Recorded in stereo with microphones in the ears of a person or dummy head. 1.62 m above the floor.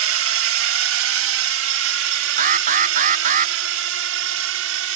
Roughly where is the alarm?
Right.